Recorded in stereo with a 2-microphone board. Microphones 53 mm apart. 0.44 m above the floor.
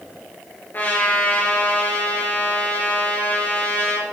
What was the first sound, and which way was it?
A trumpet, 40° left (ahead or behind).